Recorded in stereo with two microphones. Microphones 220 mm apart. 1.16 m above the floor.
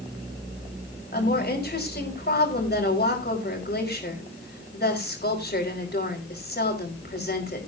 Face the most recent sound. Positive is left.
turn(degrees=45)  # may be behind; listen again after turning